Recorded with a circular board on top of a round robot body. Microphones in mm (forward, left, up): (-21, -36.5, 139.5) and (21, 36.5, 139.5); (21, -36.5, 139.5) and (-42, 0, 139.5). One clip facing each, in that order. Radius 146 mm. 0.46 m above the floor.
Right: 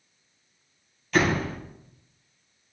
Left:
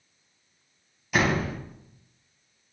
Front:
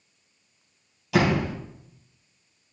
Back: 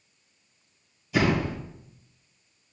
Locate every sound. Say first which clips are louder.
1.1 s a door slam: right 1 dB, front 2 dB; 20° right, 3 m